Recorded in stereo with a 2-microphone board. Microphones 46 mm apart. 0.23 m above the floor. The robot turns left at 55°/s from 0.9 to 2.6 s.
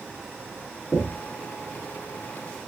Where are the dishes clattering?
I don't hear dishes clattering.